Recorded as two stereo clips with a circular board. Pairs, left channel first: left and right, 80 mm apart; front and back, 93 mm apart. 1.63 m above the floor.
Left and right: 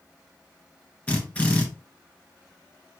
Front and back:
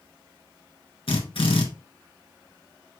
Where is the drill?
15° left, 2.5 m.